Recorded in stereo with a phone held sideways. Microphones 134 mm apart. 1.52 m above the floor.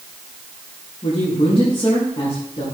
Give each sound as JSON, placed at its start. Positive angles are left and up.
{"t": 1.0, "sound": "a man speaking", "side_deg": 50, "distance_m": 5.0}